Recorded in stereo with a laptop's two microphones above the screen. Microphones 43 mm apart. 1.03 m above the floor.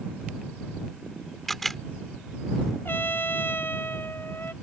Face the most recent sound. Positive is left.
turn(degrees=60)  # may be behind; listen again after turning